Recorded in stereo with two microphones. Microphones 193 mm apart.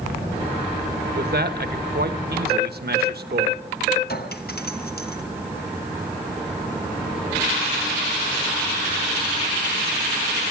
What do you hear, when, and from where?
1.1 s a man speaking: 55° right (ahead or behind), 1.3 m
4.1 s a clink: 55° left (ahead or behind), 1.1 m